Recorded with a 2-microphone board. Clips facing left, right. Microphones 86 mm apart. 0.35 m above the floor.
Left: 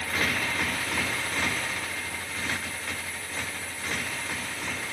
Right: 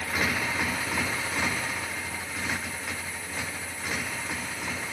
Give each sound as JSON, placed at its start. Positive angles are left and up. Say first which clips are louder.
{"t": 0.0, "sound": "a motorcycle", "louder": "even", "side_deg": -10}